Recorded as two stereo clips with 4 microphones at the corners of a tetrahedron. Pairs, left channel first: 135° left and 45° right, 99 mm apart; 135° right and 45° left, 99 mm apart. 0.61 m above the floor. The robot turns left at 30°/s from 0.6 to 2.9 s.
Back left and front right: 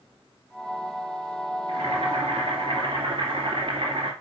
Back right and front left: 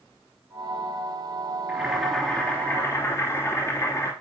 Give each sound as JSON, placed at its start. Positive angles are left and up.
{"t": 1.7, "sound": "boiling", "azimuth_deg": -35, "distance_m": 2.5}